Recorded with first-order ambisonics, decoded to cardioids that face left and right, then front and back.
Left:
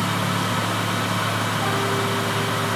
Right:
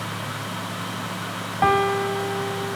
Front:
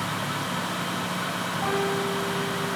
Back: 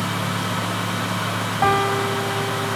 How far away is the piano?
About 1.5 m.